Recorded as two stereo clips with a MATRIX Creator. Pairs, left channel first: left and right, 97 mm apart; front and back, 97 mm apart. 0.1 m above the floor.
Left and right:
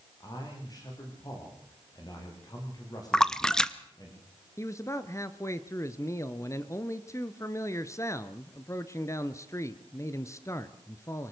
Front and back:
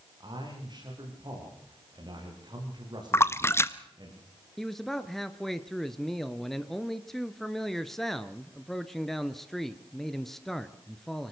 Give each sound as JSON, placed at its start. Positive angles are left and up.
{"t": 0.2, "sound": "a man speaking", "azimuth_deg": 140, "distance_m": 8.5}
{"t": 3.1, "sound": "a splash", "azimuth_deg": 15, "distance_m": 0.8}
{"t": 4.6, "sound": "a man speaking", "azimuth_deg": 85, "distance_m": 1.2}